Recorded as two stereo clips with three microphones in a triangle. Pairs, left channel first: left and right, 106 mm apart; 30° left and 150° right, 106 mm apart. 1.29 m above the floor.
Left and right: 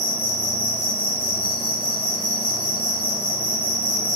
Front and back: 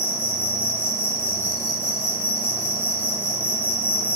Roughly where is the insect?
Behind left.